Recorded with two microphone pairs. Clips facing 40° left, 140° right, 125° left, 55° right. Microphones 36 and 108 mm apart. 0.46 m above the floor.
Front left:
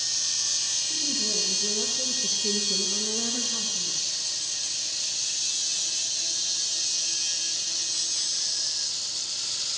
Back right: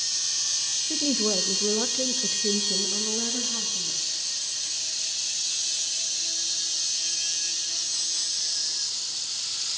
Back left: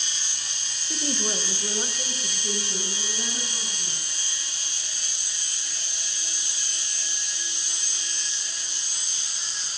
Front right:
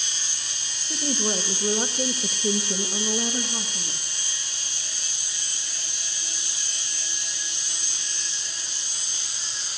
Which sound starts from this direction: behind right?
A woman speaking, at 0.9 s.